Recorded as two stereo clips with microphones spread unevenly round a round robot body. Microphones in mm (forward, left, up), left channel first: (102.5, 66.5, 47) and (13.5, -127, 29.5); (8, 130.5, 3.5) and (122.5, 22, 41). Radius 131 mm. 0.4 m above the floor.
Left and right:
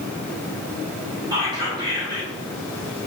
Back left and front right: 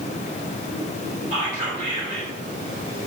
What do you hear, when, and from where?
1.3 s whispering: 65° right, 1.6 m